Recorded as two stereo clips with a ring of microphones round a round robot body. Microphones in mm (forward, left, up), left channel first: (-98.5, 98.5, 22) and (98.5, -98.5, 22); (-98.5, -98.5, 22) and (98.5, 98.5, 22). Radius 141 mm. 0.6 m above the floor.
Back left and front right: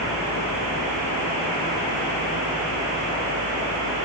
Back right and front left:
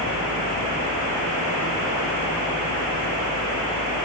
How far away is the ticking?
I don't hear ticking.